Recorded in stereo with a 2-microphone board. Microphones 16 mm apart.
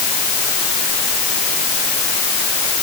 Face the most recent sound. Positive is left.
No sound to turn to.